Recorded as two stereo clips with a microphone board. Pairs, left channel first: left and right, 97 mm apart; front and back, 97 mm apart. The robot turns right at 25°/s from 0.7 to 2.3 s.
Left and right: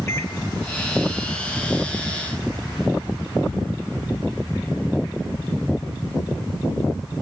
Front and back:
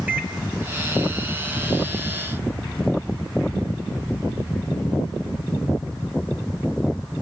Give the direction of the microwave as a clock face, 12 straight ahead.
8 o'clock.